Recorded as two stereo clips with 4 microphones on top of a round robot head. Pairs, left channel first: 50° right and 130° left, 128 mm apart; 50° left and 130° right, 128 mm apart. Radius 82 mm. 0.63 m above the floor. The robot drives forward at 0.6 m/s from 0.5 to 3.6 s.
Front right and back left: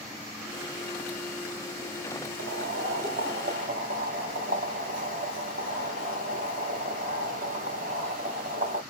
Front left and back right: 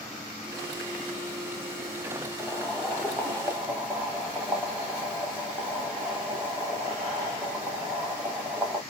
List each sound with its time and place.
2.4 s boiling: 140° left, 1.6 m; by 8.8 s 155° left, 2 m